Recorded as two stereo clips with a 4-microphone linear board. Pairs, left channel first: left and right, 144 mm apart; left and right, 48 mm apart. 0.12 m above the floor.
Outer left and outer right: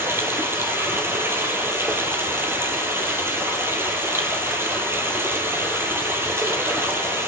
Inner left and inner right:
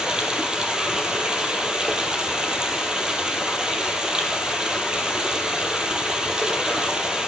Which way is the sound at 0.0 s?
15° right (ahead or behind).